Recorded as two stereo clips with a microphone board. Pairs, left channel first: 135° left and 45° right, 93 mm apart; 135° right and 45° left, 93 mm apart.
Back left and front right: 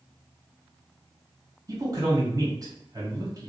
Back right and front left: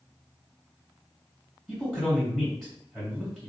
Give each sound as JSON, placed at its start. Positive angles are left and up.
{"t": 1.7, "sound": "a man speaking", "azimuth_deg": -55, "distance_m": 1.7}